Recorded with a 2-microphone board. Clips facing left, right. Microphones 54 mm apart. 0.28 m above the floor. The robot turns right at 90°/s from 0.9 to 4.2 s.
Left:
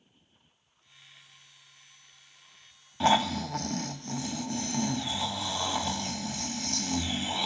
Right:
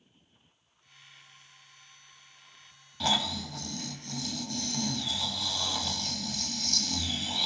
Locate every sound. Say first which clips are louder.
3.0 s snoring: left 6 dB; 40° left, 0.6 m; by 7.5 s 145° left, 0.6 m